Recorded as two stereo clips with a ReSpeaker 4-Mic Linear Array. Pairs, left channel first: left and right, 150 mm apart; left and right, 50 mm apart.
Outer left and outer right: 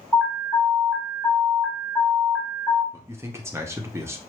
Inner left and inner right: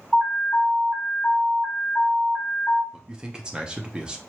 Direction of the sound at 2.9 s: 15° right (ahead or behind).